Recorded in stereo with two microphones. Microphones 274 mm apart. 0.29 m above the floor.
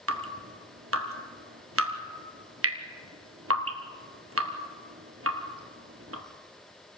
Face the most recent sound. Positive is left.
turn(degrees=-55)  # may be behind; listen again after turning